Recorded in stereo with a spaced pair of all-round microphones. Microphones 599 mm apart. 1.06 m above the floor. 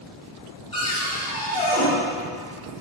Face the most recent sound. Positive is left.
turn(degrees=10)  # may be behind; listen again after turning